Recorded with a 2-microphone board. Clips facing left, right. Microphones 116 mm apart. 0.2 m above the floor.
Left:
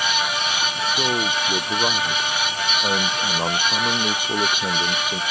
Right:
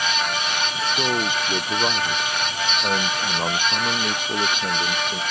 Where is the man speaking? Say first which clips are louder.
Even; centre (ahead or behind); by 5.2 s 10° left (ahead or behind).